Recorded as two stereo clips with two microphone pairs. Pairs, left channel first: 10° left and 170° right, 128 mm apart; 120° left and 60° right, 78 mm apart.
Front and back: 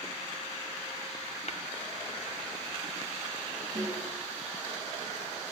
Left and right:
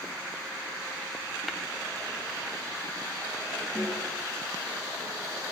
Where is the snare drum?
170° right, 6.5 m.